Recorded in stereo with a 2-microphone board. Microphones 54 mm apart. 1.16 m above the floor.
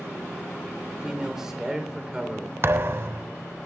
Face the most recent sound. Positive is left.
turn(degrees=-50)  # may be behind; listen again after turning